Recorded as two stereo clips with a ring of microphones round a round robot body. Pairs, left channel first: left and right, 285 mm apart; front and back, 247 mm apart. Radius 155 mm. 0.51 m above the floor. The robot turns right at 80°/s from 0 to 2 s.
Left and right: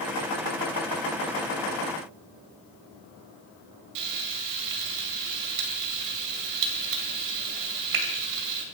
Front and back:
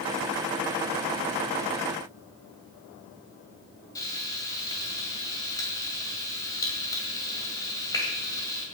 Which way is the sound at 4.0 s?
80° right.